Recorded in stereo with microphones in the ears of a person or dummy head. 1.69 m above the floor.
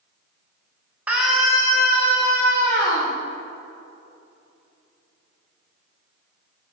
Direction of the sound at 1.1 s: 10° right (ahead or behind).